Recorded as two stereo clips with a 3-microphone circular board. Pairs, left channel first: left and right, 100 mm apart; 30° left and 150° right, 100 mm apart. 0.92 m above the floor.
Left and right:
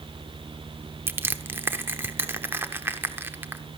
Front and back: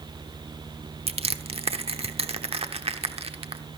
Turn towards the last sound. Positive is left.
turn(degrees=-160)